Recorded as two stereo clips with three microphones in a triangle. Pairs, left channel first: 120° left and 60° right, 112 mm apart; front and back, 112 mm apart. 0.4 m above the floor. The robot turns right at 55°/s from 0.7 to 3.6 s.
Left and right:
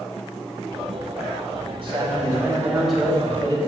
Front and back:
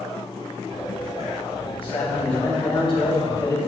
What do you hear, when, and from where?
1.8 s a man speaking: 35° right, 2 m; by 3.6 s 65° left, 2 m